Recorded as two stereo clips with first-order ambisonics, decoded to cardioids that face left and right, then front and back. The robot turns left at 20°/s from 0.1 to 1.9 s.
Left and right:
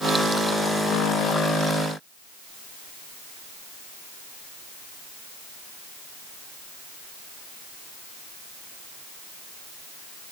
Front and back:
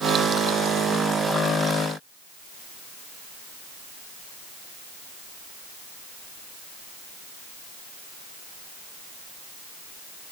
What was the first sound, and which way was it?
Only background noise.